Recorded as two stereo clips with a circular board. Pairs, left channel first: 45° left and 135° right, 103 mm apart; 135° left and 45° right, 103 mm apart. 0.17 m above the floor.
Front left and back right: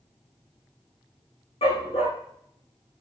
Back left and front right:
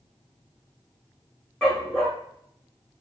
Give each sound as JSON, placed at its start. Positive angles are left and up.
{"t": 1.6, "sound": "a dog barking", "azimuth_deg": 55, "distance_m": 4.5}